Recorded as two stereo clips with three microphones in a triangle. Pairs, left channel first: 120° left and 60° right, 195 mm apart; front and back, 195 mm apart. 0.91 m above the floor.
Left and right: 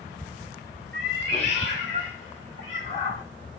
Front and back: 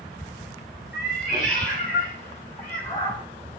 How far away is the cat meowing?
About 2.5 m.